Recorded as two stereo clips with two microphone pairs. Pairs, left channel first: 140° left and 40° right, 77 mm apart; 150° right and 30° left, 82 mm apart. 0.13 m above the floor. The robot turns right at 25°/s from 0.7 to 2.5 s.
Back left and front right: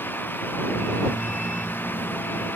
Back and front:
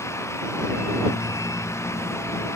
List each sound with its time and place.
Only background noise.